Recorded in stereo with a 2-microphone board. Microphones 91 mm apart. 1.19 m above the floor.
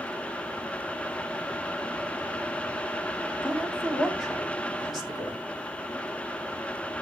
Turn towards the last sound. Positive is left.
turn(degrees=-5)  # may be behind; listen again after turning